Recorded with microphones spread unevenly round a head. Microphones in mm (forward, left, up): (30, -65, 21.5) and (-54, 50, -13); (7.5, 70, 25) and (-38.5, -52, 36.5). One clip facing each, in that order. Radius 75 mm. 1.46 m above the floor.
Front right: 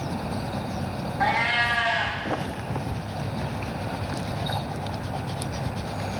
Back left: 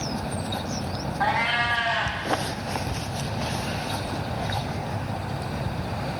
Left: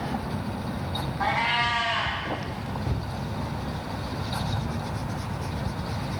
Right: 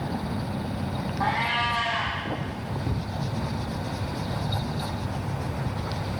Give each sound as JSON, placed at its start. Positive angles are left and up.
{"t": 1.2, "sound": "a cat meowing", "azimuth_deg": -30, "distance_m": 0.7}